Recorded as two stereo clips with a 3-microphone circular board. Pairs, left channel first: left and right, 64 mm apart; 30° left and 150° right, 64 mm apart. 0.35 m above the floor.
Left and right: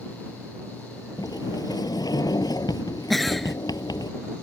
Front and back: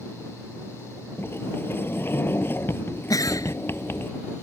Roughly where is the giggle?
Ahead.